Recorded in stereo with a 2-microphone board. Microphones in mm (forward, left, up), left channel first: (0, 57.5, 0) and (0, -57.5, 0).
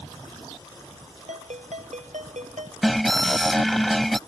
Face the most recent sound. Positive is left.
turn(degrees=0)  # may be behind; listen again after turning